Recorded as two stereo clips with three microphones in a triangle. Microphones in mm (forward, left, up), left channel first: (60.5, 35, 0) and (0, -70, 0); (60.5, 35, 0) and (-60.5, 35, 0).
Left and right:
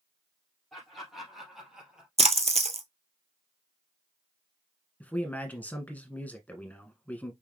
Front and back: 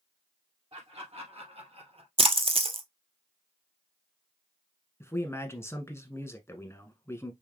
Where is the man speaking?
10° left, 1.1 m.